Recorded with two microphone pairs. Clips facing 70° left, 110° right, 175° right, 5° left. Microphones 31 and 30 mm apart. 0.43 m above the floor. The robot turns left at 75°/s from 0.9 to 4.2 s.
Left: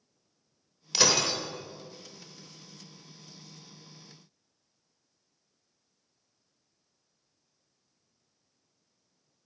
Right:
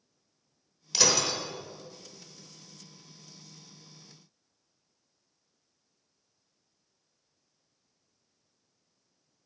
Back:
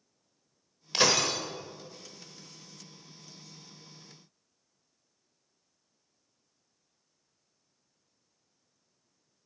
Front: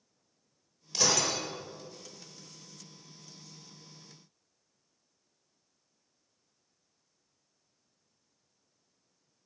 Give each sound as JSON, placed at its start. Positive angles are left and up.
{"t": 0.9, "sound": "breaking glass", "azimuth_deg": 150, "distance_m": 0.9}